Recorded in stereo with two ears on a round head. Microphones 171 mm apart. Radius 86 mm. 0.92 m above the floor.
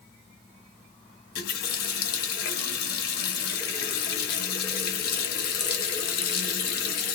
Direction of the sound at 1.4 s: 50° left (ahead or behind).